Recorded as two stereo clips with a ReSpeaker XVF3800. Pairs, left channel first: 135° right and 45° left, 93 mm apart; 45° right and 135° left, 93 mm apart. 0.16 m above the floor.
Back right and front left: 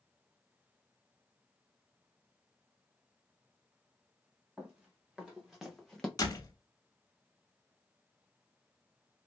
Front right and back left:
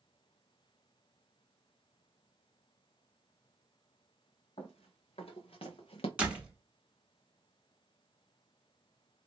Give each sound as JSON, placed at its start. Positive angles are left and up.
{"t": 4.6, "sound": "running footsteps", "azimuth_deg": -40, "distance_m": 1.9}
{"t": 6.2, "sound": "a door slam", "azimuth_deg": -155, "distance_m": 0.8}